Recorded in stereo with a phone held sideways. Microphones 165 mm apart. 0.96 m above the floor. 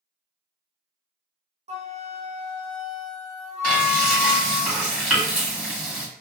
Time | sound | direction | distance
1.7 | a flute | 40° right (ahead or behind) | 0.5 m
3.6 | frying | 10° right (ahead or behind) | 1.4 m